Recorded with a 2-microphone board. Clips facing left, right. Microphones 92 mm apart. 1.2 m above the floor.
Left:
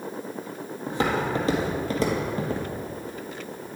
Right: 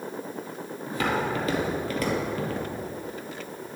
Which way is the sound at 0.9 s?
30° left (ahead or behind).